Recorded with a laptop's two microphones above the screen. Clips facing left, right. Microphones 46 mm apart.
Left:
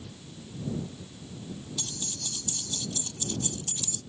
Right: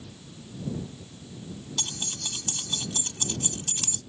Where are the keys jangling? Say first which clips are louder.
Right 4 dB; 70° right (ahead or behind).